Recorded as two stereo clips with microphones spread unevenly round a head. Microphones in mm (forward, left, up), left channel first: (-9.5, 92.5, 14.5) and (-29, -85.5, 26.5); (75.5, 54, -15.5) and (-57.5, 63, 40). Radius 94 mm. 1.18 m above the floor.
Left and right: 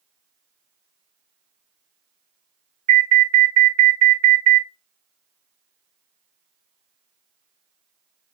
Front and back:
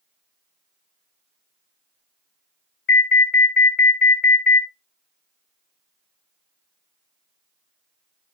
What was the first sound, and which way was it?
An alarm, 45° right.